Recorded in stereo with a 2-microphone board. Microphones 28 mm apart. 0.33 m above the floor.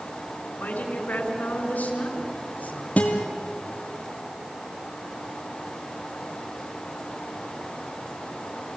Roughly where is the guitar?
Left.